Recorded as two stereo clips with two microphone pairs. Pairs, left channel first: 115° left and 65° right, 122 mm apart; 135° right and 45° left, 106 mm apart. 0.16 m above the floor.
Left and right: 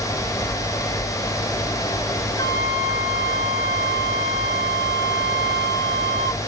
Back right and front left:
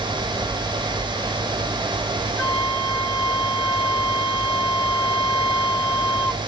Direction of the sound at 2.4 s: 140° left.